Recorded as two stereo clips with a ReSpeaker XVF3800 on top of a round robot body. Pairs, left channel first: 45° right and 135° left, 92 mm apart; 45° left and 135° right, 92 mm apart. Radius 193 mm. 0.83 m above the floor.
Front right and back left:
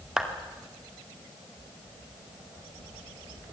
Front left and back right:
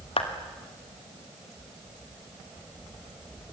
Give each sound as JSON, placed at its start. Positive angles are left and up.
{"t": 0.2, "sound": "a clap", "azimuth_deg": 55, "distance_m": 2.5}